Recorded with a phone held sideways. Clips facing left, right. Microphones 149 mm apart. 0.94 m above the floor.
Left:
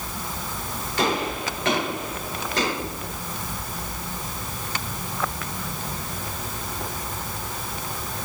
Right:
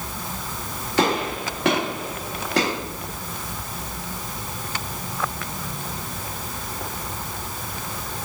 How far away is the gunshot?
About 1.6 m.